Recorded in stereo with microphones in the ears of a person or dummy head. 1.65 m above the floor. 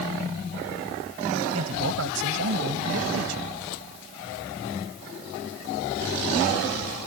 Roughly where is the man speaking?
Right.